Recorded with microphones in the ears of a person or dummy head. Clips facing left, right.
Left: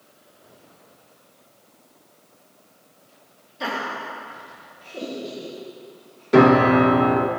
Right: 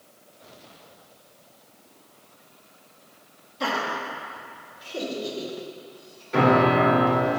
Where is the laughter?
5° left (ahead or behind), 1.9 m; by 6.2 s 20° right (ahead or behind), 4 m.